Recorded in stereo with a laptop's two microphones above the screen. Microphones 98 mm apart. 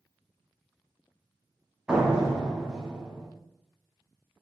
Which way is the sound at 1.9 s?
10° right (ahead or behind).